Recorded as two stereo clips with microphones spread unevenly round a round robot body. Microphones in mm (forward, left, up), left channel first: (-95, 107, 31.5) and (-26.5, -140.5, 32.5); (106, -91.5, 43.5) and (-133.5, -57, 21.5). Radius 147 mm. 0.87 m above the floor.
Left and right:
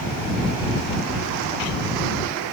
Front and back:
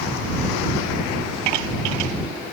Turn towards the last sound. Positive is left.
No sound to turn to.